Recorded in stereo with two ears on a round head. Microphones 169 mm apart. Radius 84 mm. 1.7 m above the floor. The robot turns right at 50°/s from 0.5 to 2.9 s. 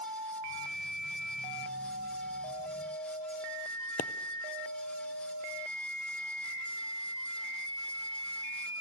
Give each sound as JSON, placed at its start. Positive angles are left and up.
{"t": 4.0, "sound": "a pop", "side_deg": 40, "distance_m": 0.7}